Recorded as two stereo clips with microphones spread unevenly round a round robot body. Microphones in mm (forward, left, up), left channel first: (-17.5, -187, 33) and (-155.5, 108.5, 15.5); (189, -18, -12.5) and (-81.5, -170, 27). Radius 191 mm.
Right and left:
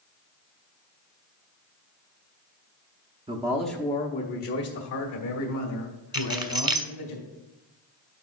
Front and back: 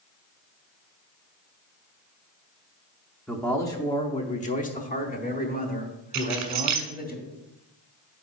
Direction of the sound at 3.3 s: 95° left.